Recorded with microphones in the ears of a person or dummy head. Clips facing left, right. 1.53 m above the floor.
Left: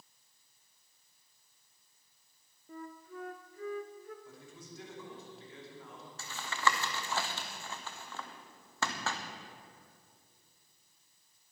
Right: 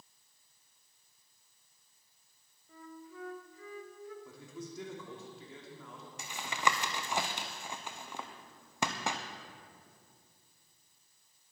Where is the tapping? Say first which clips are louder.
Even; 10° right (ahead or behind), 0.7 m.